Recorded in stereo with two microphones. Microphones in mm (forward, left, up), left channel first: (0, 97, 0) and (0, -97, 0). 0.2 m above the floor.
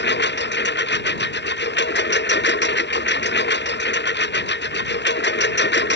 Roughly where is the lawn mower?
Left.